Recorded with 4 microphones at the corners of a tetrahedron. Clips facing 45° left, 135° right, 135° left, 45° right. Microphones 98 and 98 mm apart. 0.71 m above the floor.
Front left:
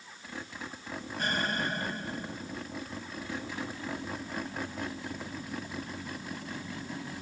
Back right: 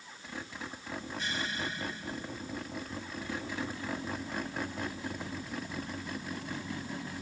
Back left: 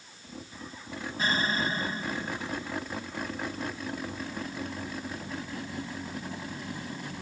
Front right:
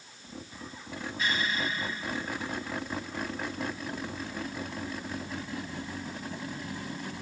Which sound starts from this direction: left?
An explosion, at 1.2 s.